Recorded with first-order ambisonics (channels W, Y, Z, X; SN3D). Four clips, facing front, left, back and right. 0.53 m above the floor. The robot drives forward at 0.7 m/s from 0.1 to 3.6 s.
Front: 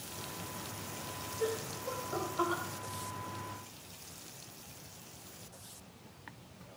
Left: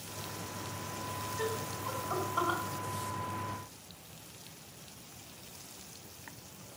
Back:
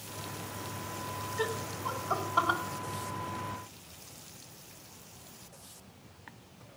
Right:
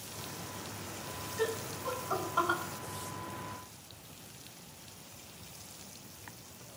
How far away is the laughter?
About 4 m.